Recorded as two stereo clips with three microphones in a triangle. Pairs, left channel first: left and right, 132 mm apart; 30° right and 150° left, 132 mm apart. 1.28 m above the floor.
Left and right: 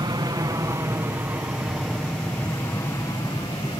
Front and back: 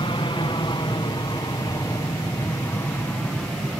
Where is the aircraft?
55° right; by 3.8 s 50° left.